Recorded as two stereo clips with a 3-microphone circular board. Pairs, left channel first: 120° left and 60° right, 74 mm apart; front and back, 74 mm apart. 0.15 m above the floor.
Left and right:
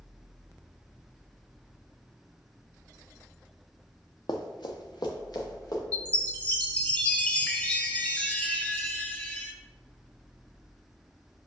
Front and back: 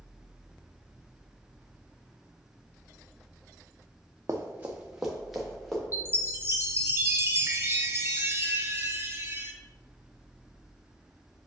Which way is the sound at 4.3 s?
125° left.